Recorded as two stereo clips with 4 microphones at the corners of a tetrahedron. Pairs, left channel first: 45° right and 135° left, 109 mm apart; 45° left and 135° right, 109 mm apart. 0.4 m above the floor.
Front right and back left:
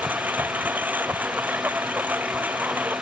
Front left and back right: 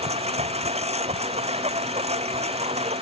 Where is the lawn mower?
150° right.